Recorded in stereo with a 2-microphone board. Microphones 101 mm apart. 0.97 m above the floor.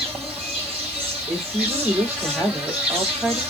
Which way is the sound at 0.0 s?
15° right (ahead or behind).